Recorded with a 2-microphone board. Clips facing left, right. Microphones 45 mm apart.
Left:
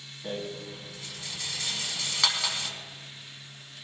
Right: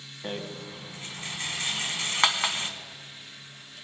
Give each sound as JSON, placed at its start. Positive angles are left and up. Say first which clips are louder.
{"t": 0.2, "sound": "a rattle", "louder": "even", "side_deg": -35, "distance_m": 1.4}